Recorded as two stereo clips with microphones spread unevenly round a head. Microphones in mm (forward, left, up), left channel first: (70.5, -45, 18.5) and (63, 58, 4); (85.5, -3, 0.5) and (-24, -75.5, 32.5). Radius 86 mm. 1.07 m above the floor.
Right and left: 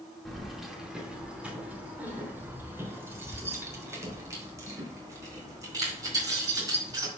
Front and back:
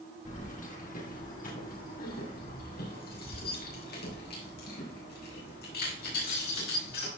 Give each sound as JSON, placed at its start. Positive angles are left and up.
{"t": 0.2, "sound": "keys jangling", "azimuth_deg": 0, "distance_m": 2.5}